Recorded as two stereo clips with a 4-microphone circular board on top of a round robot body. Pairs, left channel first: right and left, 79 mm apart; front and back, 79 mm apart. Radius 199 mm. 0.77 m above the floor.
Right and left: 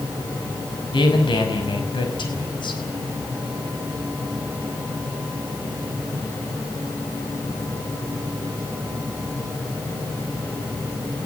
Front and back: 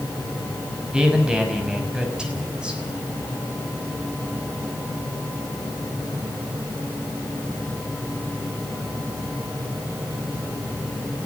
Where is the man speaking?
100° right, 5.5 m.